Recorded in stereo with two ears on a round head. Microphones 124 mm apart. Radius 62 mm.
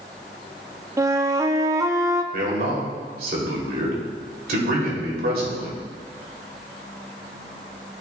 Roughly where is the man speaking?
Right.